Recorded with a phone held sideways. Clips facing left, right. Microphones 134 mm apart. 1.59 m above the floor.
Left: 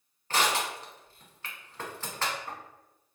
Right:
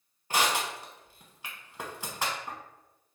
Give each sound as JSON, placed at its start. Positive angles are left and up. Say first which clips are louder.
{"t": 0.3, "sound": "crushing", "louder": "even", "side_deg": -15, "distance_m": 1.0}